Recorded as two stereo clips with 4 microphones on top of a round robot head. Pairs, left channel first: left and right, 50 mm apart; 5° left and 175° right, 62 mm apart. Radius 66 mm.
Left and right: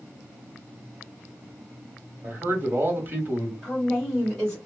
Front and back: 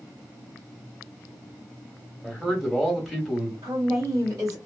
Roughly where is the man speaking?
Right.